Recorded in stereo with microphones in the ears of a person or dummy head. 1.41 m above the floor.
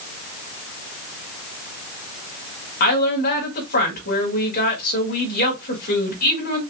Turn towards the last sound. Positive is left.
turn(degrees=50)  # may be behind; listen again after turning